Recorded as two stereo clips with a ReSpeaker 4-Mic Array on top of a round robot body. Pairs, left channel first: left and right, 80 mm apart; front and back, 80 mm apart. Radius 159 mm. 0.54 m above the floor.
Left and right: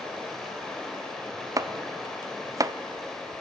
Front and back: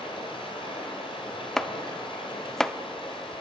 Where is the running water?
5° left, 1.6 m.